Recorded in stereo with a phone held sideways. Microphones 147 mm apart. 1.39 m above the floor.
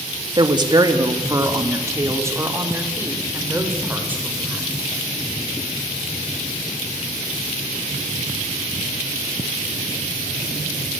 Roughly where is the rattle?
No rattle in this recording.